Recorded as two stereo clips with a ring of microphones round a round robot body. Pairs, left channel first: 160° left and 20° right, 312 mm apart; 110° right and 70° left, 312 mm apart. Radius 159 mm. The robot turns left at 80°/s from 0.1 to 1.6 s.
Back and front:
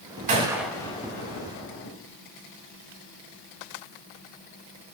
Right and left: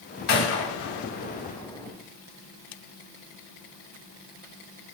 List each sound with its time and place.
0.3 s a gunshot: 80° right, 2.5 m; by 2.0 s 170° left, 2.5 m